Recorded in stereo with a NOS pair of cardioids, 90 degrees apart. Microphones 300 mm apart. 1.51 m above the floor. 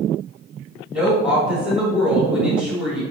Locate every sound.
0.9 s a woman speaking: 5° right, 3 m